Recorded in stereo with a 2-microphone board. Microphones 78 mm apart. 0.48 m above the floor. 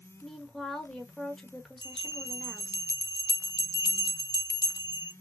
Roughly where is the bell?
Left.